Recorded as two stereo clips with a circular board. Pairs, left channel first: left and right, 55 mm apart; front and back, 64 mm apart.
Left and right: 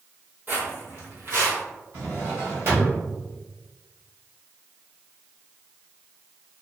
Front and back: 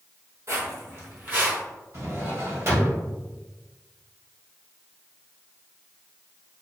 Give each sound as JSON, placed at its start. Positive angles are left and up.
{"t": 0.5, "sound": "footsteps", "azimuth_deg": -145, "distance_m": 1.5}
{"t": 1.9, "sound": "a drawer", "azimuth_deg": -135, "distance_m": 1.6}